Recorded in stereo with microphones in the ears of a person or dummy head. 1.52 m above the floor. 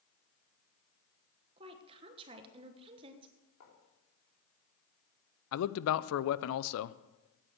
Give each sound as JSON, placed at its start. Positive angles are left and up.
{"t": 1.6, "sound": "a woman speaking", "side_deg": -30, "distance_m": 1.2}
{"t": 3.6, "sound": "writing", "side_deg": 85, "distance_m": 4.0}
{"t": 5.5, "sound": "a man speaking", "side_deg": 70, "distance_m": 0.6}